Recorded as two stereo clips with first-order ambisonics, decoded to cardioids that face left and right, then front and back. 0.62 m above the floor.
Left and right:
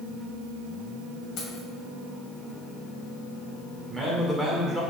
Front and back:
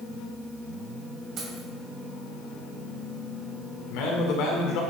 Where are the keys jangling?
125° left, 2.5 m.